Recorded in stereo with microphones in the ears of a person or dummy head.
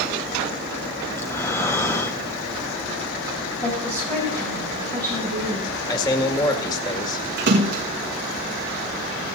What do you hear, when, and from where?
1.1 s breathing: 15° left (ahead or behind), 1.1 m
3.6 s a woman speaking: 10° left (ahead or behind), 8 m
5.9 s a man speaking: 20° left (ahead or behind), 1.9 m
7.4 s a splash: 55° right (ahead or behind), 1.6 m